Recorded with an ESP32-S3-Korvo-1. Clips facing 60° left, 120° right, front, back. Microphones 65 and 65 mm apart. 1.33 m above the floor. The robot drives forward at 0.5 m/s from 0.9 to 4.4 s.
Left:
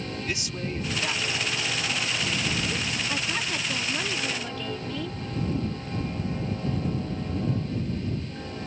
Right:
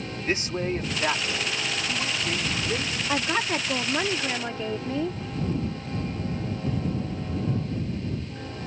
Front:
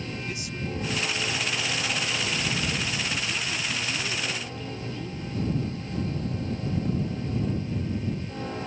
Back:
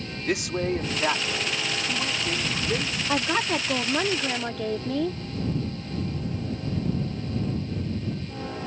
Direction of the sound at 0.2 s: 170° right.